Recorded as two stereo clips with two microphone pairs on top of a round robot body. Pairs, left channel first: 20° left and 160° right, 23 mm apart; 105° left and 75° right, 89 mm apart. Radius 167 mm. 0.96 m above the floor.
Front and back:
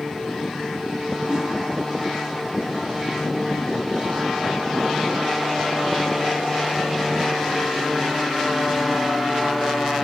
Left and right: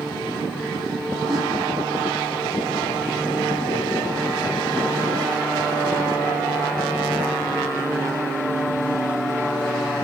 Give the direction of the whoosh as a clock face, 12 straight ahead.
4 o'clock.